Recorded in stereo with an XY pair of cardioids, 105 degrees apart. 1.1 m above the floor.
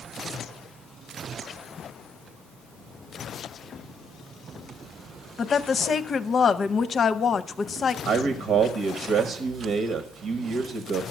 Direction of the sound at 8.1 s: 70° right.